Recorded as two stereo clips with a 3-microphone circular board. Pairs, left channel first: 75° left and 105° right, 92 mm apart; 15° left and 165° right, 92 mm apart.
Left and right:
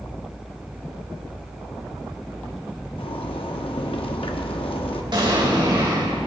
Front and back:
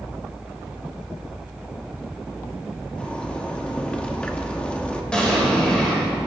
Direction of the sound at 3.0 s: 95° left.